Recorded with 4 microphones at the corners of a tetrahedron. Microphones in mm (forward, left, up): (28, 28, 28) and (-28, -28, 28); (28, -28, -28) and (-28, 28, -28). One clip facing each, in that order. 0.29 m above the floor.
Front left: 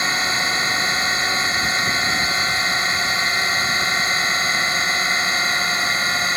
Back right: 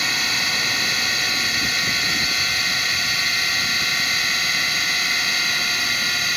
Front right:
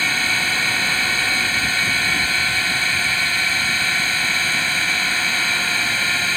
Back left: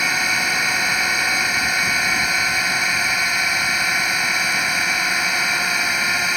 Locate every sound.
0.0 s a drone: 70° left